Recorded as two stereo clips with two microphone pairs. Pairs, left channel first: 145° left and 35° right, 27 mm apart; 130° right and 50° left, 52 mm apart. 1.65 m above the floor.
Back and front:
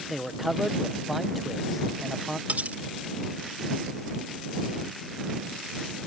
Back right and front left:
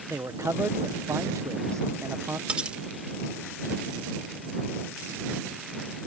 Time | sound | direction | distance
0.1 | a man speaking | 55° left | ?
2.5 | cutlery clinking | 20° right | ?